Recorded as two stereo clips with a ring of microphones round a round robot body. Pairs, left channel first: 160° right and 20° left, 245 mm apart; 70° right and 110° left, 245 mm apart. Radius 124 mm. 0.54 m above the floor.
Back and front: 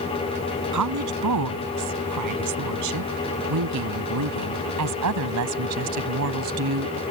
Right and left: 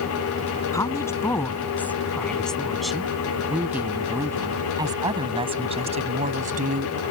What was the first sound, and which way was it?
A woman speaking, 10° left.